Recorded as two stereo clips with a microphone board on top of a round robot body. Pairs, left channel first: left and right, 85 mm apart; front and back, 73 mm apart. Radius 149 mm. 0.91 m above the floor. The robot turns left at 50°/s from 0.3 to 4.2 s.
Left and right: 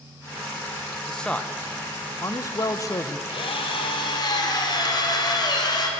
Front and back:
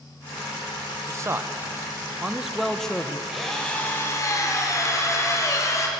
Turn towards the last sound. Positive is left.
turn(degrees=50)